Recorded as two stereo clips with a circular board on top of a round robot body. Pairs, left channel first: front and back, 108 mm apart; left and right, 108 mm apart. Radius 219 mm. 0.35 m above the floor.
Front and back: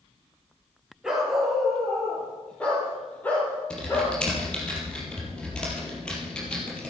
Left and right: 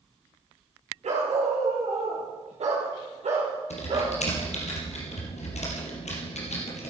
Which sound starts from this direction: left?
Typing on a keyboard, at 3.7 s.